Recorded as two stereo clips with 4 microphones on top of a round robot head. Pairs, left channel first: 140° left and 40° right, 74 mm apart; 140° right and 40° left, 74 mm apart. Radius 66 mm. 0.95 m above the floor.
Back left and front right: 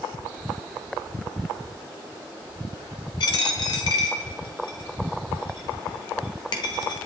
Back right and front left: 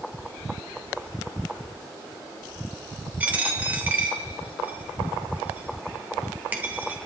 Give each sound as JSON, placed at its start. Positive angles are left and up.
{"t": 3.2, "sound": "a dropped coin", "azimuth_deg": 110, "distance_m": 1.2}